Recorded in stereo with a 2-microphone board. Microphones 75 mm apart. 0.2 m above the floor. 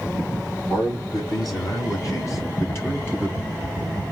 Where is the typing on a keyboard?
70° left (ahead or behind), 1.0 m.